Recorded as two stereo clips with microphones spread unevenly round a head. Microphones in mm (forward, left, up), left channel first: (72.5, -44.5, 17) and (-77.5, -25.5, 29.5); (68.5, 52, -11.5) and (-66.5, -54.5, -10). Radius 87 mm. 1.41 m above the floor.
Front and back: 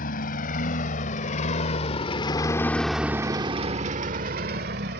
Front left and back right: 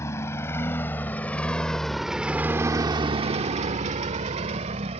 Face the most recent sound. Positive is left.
turn(degrees=170)